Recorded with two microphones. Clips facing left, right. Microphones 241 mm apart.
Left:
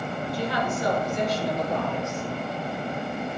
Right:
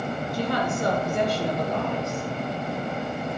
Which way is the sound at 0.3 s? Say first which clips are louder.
Right 2 dB; 45° right (ahead or behind).